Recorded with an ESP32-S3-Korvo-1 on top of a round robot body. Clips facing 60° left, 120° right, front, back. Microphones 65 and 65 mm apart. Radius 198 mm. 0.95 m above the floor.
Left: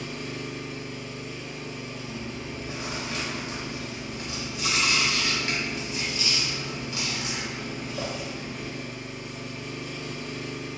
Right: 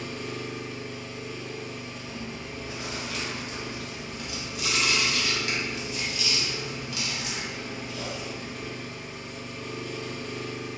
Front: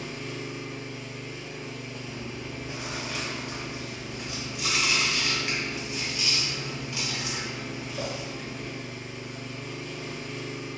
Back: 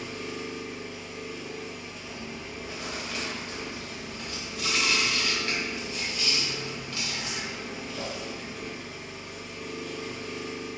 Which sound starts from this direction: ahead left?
Chewing, at 2.0 s.